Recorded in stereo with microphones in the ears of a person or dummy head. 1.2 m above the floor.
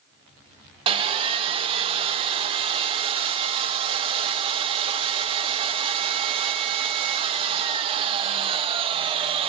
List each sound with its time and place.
0.9 s sawing: 30° right (ahead or behind), 0.6 m